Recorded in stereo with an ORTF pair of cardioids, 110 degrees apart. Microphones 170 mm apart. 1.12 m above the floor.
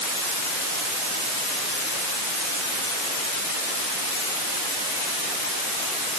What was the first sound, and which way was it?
Only background noise.